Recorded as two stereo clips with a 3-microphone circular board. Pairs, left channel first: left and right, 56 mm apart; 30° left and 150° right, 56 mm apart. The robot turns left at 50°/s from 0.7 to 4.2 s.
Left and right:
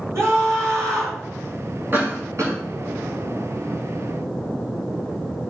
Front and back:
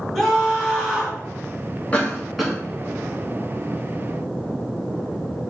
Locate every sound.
0.1 s a scream: 60° right, 3 m; by 1.2 s 85° right, 3 m
1.9 s a cough: 35° right, 2.5 m; by 2.6 s 65° right, 2.5 m